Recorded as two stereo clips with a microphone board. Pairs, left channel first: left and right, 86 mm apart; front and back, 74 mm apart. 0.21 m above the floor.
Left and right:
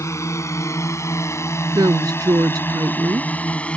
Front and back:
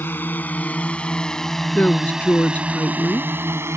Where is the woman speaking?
65° right.